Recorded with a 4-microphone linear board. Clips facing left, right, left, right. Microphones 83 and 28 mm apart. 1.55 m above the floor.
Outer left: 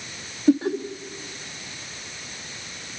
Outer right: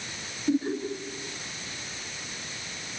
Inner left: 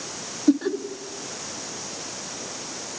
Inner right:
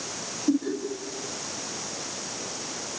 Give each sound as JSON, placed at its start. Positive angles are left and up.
{"t": 0.5, "sound": "laughter", "side_deg": 85, "distance_m": 3.5}